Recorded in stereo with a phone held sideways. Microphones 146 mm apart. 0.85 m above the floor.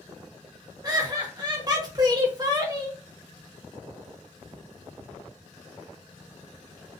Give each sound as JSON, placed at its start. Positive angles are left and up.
{"t": 0.8, "sound": "laughter", "side_deg": -30, "distance_m": 0.9}